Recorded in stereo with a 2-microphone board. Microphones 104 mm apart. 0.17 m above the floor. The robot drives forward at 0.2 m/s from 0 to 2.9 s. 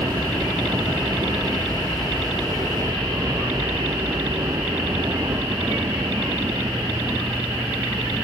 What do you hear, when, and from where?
0.0 s a helicopter: 35° right (ahead or behind)